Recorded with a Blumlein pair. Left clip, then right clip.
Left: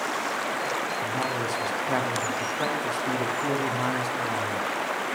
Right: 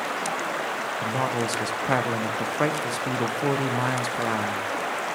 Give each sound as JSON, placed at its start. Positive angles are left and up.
{"t": 1.0, "sound": "a man speaking", "azimuth_deg": -60, "distance_m": 1.4}